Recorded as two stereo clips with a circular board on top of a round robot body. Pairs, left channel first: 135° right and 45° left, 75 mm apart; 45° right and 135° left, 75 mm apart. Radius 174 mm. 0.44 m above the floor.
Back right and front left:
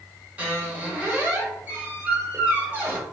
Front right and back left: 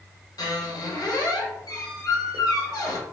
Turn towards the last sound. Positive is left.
turn(degrees=-20)